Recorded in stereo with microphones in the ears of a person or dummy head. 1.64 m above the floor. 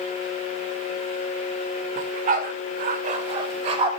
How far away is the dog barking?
About 1.8 m.